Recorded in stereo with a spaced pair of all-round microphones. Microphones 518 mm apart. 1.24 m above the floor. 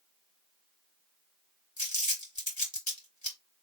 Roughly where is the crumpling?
Left.